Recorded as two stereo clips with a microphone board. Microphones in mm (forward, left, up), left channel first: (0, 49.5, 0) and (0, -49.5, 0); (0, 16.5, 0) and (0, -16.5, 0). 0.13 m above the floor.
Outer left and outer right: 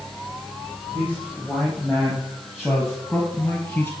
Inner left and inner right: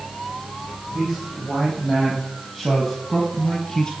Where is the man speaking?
15° right (ahead or behind), 5 m; by 3.9 s 10° left (ahead or behind), 2.0 m.